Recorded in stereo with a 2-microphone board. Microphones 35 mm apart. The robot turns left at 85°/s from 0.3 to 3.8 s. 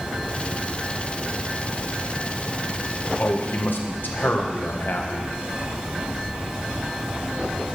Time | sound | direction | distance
3.2 | a man speaking | 120° left | 1.6 m